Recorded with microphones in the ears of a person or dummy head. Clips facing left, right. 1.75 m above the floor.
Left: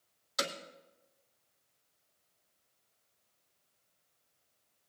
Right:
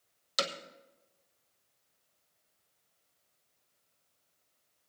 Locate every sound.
0.4 s hammering: 50° right (ahead or behind), 1.4 m